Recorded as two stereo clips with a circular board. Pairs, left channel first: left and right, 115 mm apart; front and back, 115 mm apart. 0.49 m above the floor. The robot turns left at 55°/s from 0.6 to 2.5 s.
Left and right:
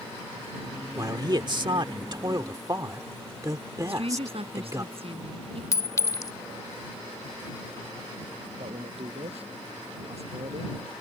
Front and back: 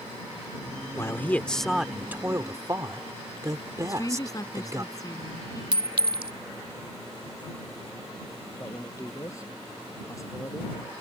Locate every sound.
0.9 s a man speaking: 50° right; by 4.8 s 135° right
3.8 s a woman speaking: 60° right
5.7 s a clink: 145° left
8.6 s a man speaking: 65° right